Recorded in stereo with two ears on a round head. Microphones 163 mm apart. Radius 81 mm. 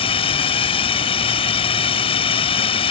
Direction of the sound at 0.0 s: 30° left (ahead or behind).